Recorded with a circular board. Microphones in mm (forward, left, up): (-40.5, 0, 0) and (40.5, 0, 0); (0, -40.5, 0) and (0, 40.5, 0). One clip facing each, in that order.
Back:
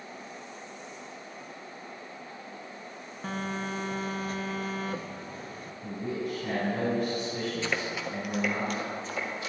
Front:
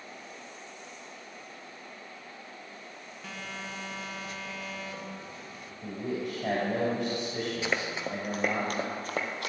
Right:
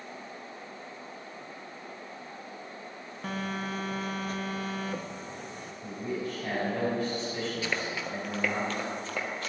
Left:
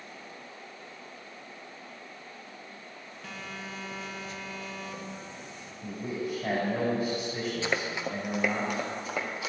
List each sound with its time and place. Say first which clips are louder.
3.2 s a phone buzzing: back 8 dB, right 8 dB; 135° right, 0.5 m
5.8 s a man speaking: even, even; 15° left, 4 m
7.6 s running footsteps: even, left 2 dB; 55° left, 1.0 m; by 9.5 s 10° left, 1.8 m